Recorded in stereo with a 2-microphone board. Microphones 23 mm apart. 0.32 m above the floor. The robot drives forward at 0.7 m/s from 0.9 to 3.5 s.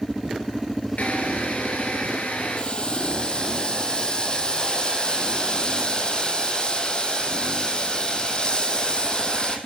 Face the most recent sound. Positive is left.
turn(degrees=35)  # may be behind; listen again after turning